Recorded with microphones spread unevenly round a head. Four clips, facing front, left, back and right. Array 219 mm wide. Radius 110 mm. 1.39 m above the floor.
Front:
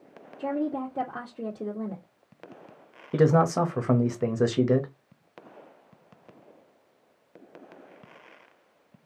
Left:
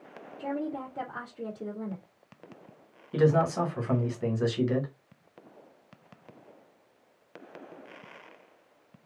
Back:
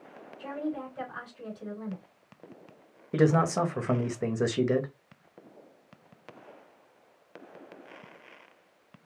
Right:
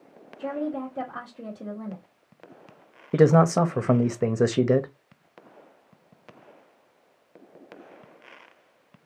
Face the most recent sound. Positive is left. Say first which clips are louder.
# right 6 dB, front 3 dB
turn(degrees=-85)